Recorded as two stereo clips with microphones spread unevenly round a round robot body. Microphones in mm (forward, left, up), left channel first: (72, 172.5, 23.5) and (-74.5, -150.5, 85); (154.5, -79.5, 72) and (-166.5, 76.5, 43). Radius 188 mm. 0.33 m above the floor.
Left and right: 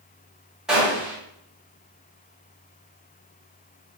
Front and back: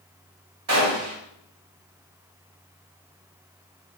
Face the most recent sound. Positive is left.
turn(degrees=150)